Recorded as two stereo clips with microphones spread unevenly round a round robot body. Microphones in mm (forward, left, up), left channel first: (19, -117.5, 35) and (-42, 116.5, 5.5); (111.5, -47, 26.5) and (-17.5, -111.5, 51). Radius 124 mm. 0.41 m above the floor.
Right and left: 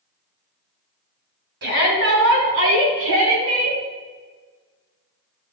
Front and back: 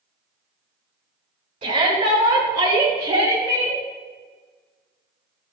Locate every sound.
1.6 s a shout: 145° left, 4.5 m; by 3.8 s 125° left, 3.5 m